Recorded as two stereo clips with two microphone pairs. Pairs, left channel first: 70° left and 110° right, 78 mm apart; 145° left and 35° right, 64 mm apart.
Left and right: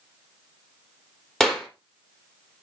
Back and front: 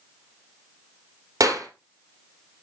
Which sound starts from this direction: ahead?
A clap, at 1.4 s.